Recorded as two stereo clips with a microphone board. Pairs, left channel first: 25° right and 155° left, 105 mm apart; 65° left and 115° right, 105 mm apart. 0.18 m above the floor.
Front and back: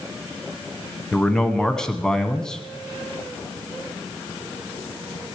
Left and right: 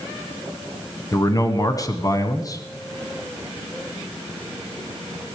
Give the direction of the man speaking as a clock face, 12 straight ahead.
10 o'clock.